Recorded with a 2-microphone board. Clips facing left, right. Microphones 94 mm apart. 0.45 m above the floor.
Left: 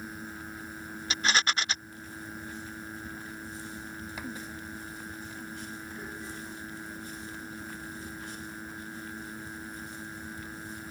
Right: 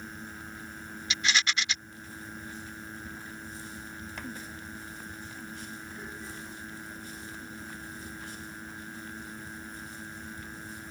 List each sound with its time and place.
1.1 s a rattle: 40° left (ahead or behind)